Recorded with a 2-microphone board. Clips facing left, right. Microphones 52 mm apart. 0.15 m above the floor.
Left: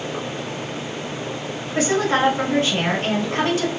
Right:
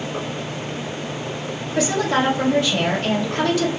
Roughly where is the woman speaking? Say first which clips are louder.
Left 1 dB; left.